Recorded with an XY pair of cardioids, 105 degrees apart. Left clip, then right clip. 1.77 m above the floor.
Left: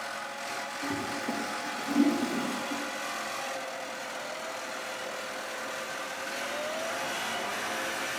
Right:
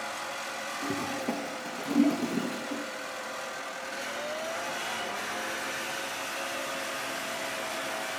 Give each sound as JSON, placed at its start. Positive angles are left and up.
{"t": 0.8, "sound": "a toilet flushing", "azimuth_deg": -35, "distance_m": 2.0}